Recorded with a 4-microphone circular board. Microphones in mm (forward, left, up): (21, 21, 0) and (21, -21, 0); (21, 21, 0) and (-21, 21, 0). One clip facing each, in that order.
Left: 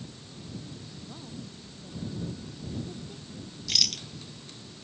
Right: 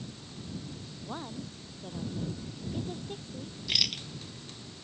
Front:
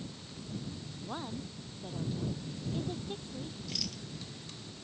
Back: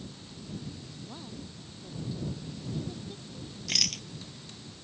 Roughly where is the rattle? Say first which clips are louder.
Even, back 13 dB; behind.